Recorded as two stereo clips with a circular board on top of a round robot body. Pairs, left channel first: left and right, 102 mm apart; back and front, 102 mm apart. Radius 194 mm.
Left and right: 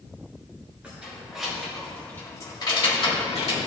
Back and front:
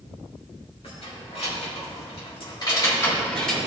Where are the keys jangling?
165° right, 3 m; by 3.6 s 95° left, 2 m.